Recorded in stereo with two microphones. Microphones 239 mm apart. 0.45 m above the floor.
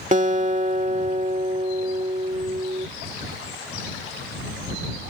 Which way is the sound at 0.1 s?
30° right (ahead or behind).